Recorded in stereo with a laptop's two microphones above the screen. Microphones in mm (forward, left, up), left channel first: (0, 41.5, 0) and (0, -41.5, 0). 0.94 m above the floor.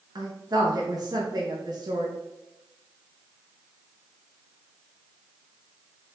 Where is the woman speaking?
50° right (ahead or behind), 1.0 m.